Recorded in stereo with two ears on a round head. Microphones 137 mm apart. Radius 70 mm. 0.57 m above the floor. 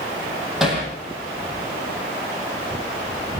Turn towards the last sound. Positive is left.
turn(degrees=-5)  # may be behind; listen again after turning